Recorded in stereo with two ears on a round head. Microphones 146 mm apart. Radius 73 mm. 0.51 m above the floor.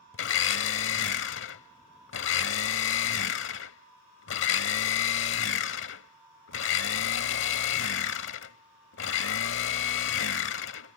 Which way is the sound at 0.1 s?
85° left.